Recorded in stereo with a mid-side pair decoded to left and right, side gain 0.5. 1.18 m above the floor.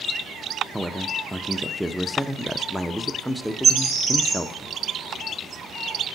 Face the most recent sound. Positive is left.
turn(degrees=-55)